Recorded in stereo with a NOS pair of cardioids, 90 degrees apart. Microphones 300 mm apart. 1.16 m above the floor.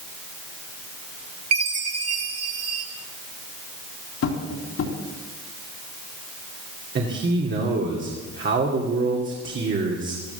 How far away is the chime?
About 2.5 m.